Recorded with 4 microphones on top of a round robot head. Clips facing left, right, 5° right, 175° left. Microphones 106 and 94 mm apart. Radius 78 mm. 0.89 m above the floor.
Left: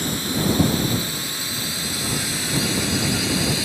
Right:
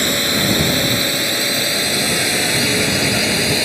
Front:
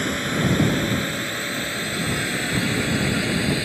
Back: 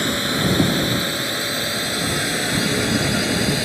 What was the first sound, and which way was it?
A drone, 110° right.